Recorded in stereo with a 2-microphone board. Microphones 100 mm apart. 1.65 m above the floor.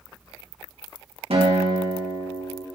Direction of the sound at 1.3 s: 70° right (ahead or behind).